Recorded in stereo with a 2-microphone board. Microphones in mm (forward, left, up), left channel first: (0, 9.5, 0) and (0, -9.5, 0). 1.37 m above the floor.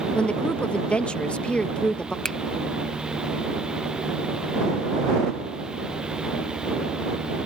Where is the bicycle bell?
I don't hear a bicycle bell.